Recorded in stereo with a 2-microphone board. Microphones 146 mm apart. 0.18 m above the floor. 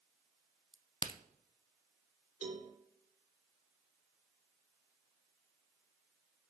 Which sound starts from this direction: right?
A cowbell, at 2.4 s.